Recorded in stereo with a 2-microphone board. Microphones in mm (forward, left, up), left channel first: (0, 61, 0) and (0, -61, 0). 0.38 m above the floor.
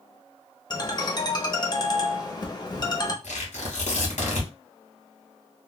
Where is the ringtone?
35° left (ahead or behind), 0.7 m.